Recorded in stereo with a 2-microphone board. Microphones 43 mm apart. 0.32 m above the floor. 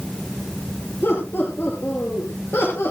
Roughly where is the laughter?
Left.